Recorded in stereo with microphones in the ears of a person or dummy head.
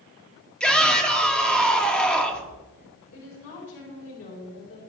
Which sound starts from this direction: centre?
A shout, at 0.6 s.